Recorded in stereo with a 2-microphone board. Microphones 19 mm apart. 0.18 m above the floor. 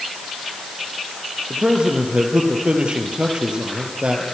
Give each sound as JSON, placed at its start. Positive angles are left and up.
{"t": 1.5, "sound": "a man speaking", "side_deg": -50, "distance_m": 4.5}